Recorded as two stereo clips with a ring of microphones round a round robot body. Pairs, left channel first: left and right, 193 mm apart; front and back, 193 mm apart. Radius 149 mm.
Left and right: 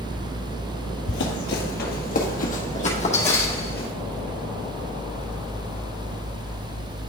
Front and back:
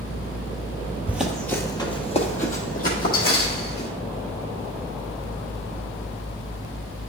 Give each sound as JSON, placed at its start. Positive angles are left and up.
{"t": 1.1, "sound": "running footsteps", "azimuth_deg": 100, "distance_m": 1.2}